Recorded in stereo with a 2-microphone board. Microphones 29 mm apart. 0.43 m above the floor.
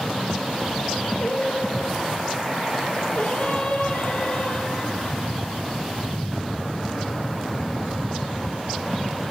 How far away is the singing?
About 3.5 m.